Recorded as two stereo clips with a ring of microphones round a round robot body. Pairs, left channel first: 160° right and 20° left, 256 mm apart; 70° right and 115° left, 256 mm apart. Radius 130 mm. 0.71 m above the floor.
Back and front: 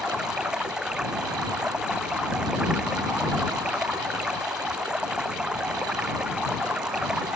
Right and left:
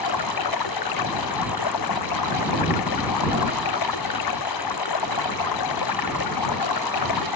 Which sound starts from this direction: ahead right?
Running water, at 0.0 s.